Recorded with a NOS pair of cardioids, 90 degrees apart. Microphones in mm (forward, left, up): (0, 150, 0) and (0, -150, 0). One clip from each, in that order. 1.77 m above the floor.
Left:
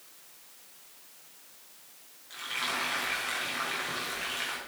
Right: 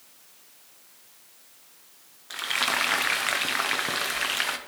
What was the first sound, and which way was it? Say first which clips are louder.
Frying: right 7 dB; 65° right.